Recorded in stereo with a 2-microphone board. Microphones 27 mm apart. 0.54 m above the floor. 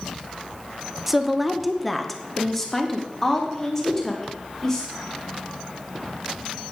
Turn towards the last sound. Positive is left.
turn(degrees=15)  # may be behind; listen again after turning